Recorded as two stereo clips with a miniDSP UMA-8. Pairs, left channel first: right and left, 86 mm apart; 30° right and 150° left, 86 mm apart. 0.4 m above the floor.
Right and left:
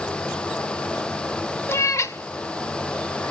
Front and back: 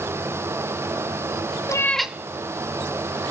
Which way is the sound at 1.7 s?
40° right.